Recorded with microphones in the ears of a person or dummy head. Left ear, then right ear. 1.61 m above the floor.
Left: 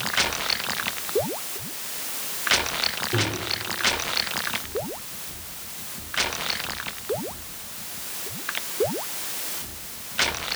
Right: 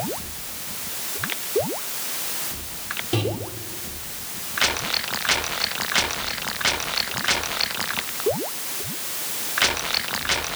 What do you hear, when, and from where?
3.1 s a microwave: 35° right (ahead or behind), 1.9 m